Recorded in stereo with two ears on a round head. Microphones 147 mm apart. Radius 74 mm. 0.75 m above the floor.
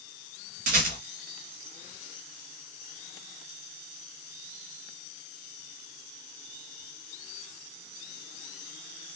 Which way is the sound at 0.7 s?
55° right (ahead or behind).